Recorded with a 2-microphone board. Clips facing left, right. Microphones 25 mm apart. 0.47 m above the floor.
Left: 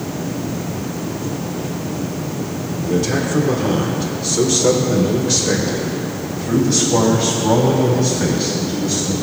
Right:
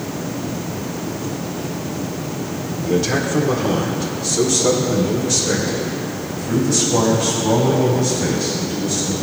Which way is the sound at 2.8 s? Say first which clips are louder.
Even; 20° right (ahead or behind).